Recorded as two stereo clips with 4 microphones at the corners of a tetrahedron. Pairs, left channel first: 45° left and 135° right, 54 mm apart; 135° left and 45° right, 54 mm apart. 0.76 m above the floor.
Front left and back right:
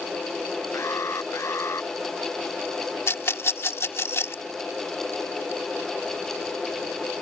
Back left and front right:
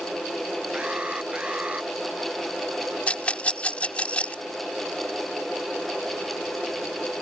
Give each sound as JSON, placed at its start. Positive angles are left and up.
{"t": 0.7, "sound": "an alarm", "azimuth_deg": 20}
{"t": 3.1, "sound": "a rattle", "azimuth_deg": 75}